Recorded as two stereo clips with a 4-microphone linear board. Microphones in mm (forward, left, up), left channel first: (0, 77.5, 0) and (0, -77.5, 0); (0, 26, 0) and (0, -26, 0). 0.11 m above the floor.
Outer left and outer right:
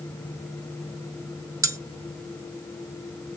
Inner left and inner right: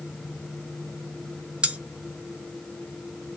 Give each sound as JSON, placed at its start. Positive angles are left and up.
{"t": 1.6, "sound": "cutlery clinking", "side_deg": -20, "distance_m": 0.8}